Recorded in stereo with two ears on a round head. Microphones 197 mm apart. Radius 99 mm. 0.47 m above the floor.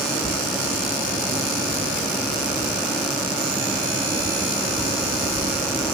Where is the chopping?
No chopping in this recording.